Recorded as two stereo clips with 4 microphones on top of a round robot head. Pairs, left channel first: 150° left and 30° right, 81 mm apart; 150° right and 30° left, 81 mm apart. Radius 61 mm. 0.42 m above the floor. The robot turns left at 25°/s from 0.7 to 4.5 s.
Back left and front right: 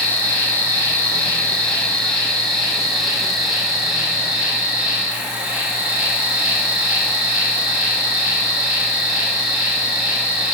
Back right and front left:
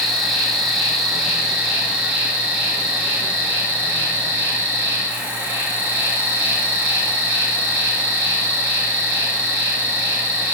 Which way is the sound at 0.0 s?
120° left.